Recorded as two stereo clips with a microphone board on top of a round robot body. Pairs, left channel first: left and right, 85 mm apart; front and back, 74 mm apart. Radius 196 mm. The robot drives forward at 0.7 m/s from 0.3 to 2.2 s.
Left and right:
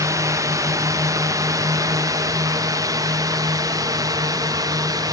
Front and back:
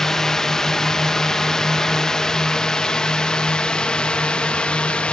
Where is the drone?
80° right; by 5.1 s 70° right.